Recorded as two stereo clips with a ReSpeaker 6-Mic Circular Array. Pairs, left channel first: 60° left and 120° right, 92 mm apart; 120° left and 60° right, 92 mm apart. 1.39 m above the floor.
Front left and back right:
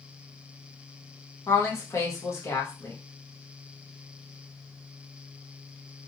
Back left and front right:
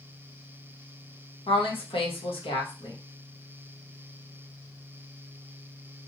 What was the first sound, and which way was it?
A woman speaking, 115° left.